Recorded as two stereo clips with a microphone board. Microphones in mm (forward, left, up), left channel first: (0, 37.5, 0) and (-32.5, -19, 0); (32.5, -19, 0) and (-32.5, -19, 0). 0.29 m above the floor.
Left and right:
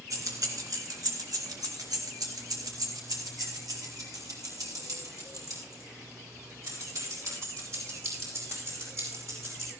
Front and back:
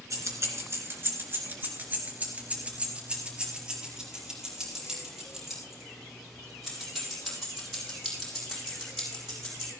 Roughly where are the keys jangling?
Behind right.